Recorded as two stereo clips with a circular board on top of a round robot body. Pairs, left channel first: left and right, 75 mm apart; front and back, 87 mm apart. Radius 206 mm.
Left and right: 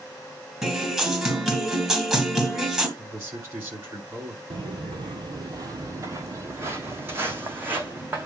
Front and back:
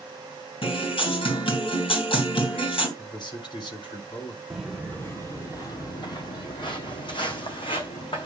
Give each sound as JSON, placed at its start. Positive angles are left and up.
{"t": 0.6, "sound": "a guitar", "azimuth_deg": -5, "distance_m": 3.5}
{"t": 3.0, "sound": "a man speaking", "azimuth_deg": -35, "distance_m": 5.5}
{"t": 4.5, "sound": "footsteps", "azimuth_deg": -90, "distance_m": 0.6}